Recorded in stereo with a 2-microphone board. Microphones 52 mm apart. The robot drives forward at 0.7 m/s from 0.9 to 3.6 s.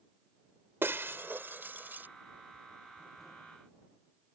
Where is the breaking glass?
45° right (ahead or behind); by 2.1 s 35° right (ahead or behind).